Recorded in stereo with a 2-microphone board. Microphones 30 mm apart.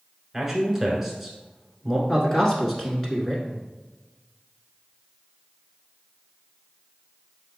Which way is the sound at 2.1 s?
10° left (ahead or behind).